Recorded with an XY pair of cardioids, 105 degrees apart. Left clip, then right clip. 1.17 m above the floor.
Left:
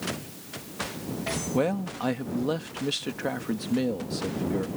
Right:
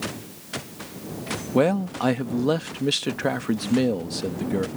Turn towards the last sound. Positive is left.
turn(degrees=-35)